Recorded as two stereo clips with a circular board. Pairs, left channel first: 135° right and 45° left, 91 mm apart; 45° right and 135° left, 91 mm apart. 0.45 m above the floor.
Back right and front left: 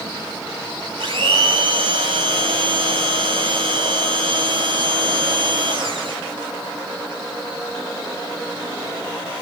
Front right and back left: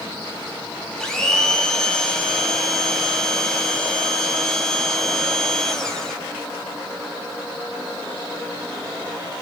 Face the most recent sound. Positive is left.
turn(degrees=35)